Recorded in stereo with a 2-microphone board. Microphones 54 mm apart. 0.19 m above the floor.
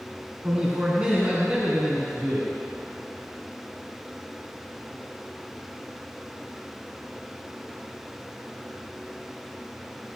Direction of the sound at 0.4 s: 25° right (ahead or behind).